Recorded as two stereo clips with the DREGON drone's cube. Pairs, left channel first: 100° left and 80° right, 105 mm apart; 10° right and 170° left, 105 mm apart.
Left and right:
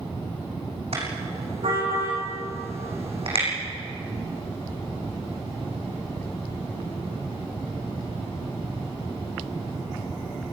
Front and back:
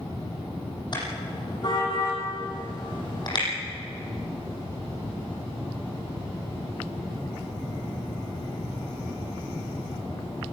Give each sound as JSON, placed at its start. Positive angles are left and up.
{"t": 0.9, "sound": "a car horn", "azimuth_deg": -60, "distance_m": 8.0}